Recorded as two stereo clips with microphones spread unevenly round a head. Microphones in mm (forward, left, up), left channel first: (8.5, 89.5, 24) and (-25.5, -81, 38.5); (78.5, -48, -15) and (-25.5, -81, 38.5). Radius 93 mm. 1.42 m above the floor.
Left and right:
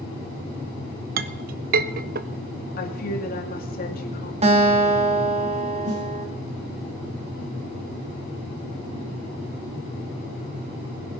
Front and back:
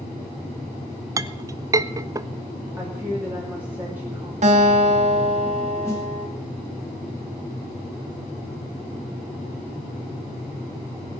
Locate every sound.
1.2 s a clink: 130° right, 0.6 m
2.8 s a woman speaking: 120° left, 2.5 m
4.4 s a guitar: 155° right, 2.5 m
5.8 s a snare drum: 50° right, 7 m